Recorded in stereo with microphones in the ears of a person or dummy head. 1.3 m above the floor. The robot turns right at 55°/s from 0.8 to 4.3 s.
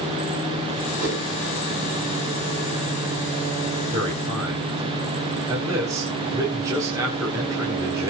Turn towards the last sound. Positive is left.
turn(degrees=-20)  # may be behind; listen again after turning